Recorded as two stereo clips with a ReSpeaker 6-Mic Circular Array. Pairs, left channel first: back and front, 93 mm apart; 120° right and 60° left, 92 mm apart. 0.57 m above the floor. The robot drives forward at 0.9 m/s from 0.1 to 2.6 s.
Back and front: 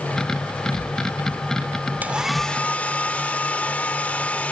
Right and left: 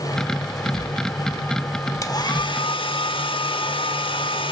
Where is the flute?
I don't hear a flute.